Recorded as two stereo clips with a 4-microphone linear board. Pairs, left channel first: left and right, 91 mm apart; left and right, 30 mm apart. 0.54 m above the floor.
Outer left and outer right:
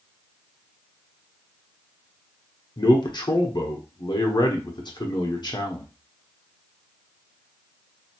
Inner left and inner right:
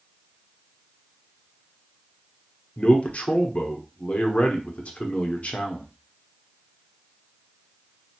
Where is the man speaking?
50° left (ahead or behind), 1.0 m.